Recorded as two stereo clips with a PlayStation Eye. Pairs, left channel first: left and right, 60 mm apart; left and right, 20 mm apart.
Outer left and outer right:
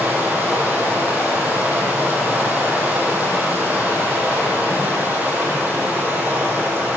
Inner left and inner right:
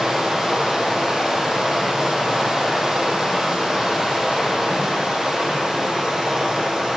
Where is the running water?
25° right (ahead or behind), 3 m.